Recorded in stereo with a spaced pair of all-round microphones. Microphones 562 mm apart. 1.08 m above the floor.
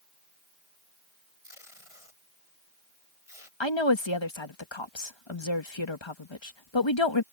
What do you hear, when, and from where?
1.4 s tape being pulled: 75° left (ahead or behind)
3.6 s a woman speaking: 55° left (ahead or behind)